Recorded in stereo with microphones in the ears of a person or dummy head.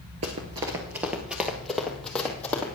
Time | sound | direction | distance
0.2 | running footsteps | 25° right (ahead or behind) | 1.2 m